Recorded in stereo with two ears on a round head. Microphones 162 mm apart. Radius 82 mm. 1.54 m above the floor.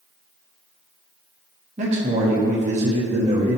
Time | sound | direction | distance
1.8 | a man speaking | 40° right (ahead or behind) | 0.8 m